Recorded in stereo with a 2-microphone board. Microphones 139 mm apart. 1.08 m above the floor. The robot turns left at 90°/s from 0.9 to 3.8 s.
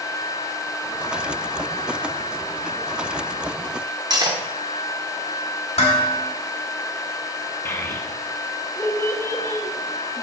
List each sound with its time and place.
4.1 s cutlery clinking: 30° right (ahead or behind), 0.9 m
5.8 s dishes clattering: 45° left (ahead or behind), 1.8 m
7.7 s a child speaking: 15° left (ahead or behind), 1.0 m